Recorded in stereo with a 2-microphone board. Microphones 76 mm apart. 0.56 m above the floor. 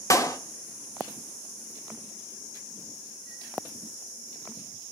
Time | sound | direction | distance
0.1 | a clap | 45° left (ahead or behind) | 1.1 m